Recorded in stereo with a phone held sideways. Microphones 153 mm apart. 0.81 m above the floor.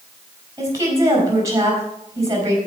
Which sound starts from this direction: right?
A woman speaking, at 0.6 s.